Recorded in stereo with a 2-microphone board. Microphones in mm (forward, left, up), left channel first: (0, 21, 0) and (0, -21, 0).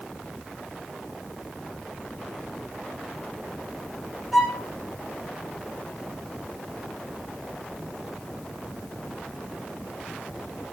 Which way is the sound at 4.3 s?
Centre (ahead or behind).